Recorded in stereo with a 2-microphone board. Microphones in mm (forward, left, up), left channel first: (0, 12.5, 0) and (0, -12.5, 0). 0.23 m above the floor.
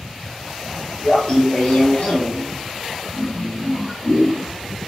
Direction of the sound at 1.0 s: 30° left (ahead or behind).